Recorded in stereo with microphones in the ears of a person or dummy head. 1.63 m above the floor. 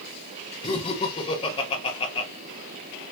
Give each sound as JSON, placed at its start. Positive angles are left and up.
{"t": 0.6, "sound": "laughter", "side_deg": 25, "distance_m": 0.9}